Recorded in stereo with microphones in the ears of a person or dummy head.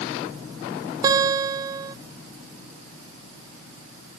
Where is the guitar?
25° right (ahead or behind).